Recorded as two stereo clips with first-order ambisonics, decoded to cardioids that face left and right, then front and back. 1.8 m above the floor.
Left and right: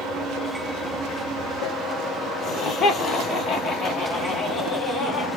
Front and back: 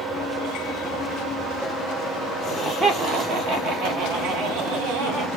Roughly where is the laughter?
Left.